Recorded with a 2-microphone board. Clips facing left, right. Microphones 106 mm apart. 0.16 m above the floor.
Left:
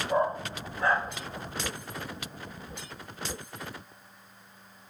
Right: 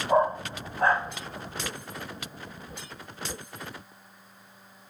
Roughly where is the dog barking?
Right.